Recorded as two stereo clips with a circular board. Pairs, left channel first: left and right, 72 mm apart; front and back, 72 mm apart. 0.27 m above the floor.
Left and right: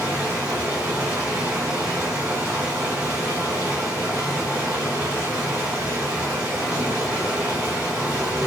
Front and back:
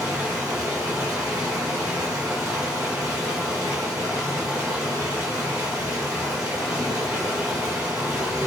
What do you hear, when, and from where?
0.0 s running water: 155° right, 1.1 m